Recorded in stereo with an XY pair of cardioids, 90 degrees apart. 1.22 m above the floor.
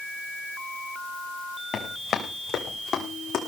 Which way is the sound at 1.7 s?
60° left.